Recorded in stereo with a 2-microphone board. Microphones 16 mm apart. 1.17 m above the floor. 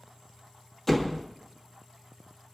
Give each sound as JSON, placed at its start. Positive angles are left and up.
{"t": 0.9, "sound": "a door slam", "side_deg": 20, "distance_m": 1.6}